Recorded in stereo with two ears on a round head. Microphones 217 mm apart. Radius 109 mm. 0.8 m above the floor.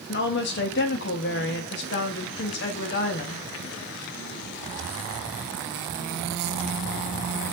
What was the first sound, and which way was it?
A woman speaking, 45° left (ahead or behind).